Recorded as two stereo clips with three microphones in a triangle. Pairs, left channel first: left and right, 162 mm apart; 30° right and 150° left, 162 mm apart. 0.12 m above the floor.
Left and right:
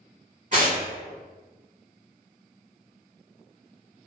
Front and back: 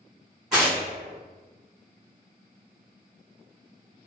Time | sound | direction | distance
0.5 | tearing paper | 125° right | 1.6 m